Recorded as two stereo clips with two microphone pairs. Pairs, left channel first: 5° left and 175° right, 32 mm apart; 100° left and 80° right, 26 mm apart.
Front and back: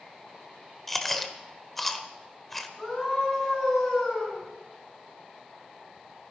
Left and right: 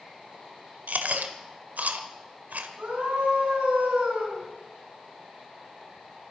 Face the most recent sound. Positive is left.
turn(degrees=-80)